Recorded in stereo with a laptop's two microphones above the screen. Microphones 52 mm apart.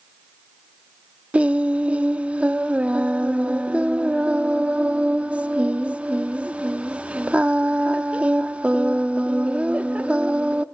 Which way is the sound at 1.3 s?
25° right (ahead or behind).